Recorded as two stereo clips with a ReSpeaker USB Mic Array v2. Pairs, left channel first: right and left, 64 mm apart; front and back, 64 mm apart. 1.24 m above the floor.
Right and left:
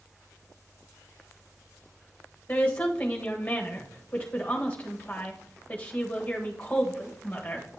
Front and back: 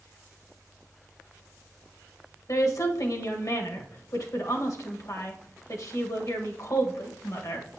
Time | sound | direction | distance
2.5 | a woman speaking | 20° right | 1.5 m